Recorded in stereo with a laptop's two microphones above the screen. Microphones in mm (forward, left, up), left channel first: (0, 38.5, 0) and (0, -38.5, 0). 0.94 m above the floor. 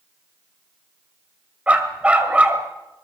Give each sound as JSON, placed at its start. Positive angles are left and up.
{"t": 1.7, "sound": "a dog barking", "side_deg": -15, "distance_m": 1.7}